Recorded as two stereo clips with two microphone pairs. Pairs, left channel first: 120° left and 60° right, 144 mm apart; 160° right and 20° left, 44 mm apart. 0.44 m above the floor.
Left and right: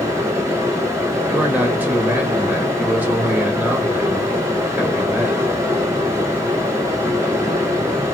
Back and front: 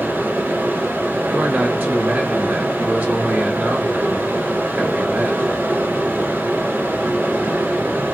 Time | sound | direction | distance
0.0 | running water | 5° left | 2 m
1.3 | a man speaking | 15° left | 1.6 m